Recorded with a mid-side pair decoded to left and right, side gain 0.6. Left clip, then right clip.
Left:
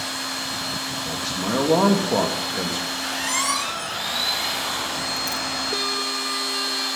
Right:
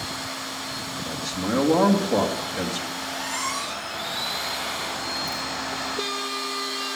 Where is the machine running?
40° left, 5 m.